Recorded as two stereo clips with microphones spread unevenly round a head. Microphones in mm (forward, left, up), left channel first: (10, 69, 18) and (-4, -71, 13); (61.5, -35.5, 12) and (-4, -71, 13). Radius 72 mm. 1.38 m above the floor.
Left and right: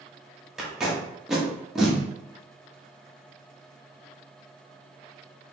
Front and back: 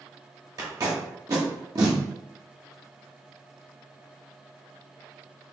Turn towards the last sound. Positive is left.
turn(degrees=175)